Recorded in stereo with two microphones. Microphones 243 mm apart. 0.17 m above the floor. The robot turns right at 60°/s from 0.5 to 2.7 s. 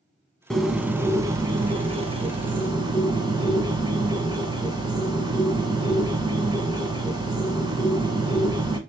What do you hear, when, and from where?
0.5 s a bird: centre (ahead or behind), 0.9 m; by 8.8 s 20° right (ahead or behind), 0.9 m